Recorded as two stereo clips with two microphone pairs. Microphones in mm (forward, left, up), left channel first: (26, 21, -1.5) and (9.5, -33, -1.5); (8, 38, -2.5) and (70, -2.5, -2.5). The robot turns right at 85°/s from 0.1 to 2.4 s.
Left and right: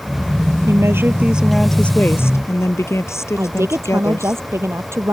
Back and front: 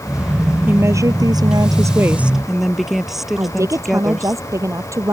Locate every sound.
0.7 s a woman speaking: 95° right; by 4.4 s 50° left
3.4 s a woman speaking: 75° right